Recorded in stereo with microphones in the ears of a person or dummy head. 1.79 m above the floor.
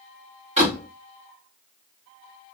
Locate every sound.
0.6 s a door slam: 35° right (ahead or behind), 3 m